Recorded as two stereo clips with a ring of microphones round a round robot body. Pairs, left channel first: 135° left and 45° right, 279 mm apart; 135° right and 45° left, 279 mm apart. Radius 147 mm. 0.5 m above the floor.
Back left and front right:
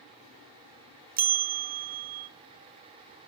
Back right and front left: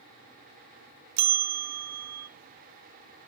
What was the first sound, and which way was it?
A bell, 15° left.